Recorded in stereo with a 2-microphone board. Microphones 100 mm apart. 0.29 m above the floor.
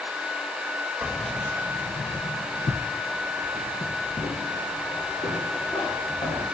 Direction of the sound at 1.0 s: 15° right (ahead or behind).